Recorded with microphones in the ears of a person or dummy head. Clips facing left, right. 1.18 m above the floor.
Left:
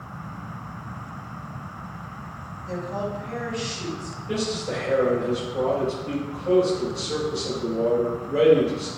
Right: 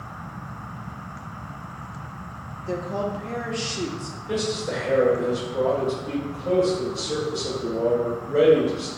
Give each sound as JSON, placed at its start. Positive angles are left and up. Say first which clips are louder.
{"t": 2.6, "sound": "a woman speaking", "louder": "right 2 dB", "side_deg": -50, "distance_m": 0.8}
{"t": 4.3, "sound": "a man speaking", "louder": "right 1 dB", "side_deg": -10, "distance_m": 1.9}